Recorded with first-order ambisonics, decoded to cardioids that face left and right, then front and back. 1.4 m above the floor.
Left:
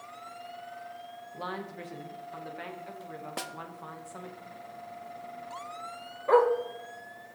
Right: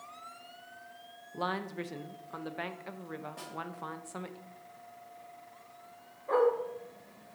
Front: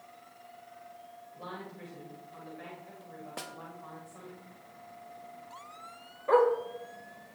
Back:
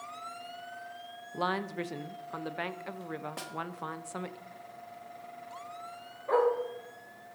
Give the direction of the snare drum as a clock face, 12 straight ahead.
9 o'clock.